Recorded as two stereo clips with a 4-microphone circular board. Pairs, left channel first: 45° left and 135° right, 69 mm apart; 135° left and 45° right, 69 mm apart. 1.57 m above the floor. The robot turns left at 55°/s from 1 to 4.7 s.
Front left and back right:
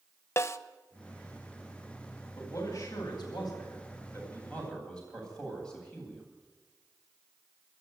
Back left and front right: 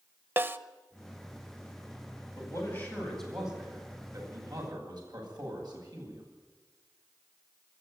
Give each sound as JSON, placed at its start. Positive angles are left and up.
{"t": 0.4, "sound": "a snare drum", "azimuth_deg": 5, "distance_m": 1.0}
{"t": 2.4, "sound": "a man speaking", "azimuth_deg": 95, "distance_m": 10.0}